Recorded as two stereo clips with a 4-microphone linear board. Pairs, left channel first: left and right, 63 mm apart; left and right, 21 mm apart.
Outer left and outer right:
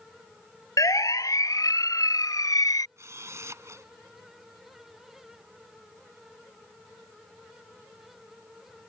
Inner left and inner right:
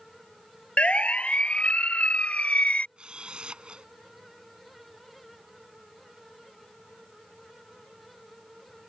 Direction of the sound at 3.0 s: 50° right (ahead or behind).